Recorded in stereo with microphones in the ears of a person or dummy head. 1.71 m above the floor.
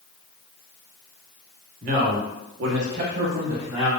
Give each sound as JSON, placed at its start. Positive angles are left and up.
{"t": 1.8, "sound": "a man speaking", "side_deg": -50, "distance_m": 0.9}